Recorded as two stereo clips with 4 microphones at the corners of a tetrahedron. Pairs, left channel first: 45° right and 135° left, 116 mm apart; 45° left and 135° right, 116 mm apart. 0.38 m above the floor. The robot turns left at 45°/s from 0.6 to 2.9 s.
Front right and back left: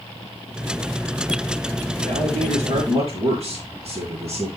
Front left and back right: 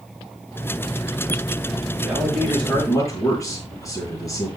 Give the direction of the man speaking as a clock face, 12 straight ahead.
7 o'clock.